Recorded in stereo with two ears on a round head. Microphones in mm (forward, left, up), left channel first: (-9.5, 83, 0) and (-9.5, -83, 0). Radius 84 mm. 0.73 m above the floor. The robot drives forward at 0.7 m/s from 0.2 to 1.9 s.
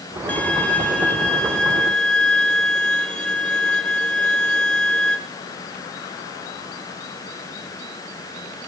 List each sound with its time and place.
0.3 s a violin: 10° left (ahead or behind), 1.4 m; by 5.2 s 5° left (ahead or behind), 2.5 m